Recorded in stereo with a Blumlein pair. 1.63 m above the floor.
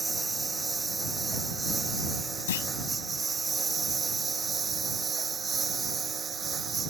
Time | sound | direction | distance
0.0 | a lawn mower | 10° right | ?
2.5 | a clunk | 60° left | ?